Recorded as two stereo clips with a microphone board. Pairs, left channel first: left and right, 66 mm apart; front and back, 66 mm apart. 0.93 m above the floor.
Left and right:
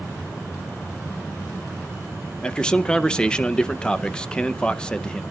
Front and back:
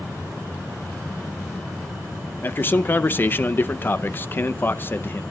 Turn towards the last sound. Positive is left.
turn(degrees=25)